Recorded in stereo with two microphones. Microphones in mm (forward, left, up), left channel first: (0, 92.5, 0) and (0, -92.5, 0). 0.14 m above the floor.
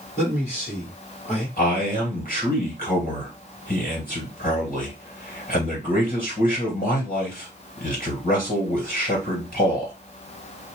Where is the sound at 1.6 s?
50° left (ahead or behind), 1.9 m.